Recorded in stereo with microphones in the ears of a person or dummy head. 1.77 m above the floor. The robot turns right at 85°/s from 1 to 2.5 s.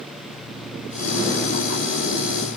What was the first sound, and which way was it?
Only background noise.